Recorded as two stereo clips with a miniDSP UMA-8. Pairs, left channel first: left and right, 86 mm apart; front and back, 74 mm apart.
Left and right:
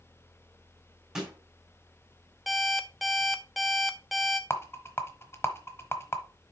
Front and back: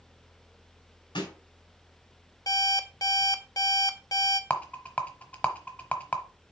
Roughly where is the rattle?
Ahead left.